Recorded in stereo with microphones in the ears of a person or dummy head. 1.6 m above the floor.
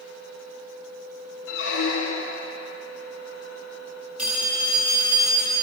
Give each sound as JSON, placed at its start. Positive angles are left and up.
{"t": 0.0, "sound": "a fan", "side_deg": -50, "distance_m": 2.0}
{"t": 1.5, "sound": "a squeak", "side_deg": 65, "distance_m": 1.1}
{"t": 4.2, "sound": "a phone ringing", "side_deg": -10, "distance_m": 2.0}